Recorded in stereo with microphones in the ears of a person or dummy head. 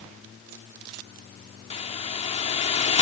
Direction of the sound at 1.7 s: 30° left (ahead or behind).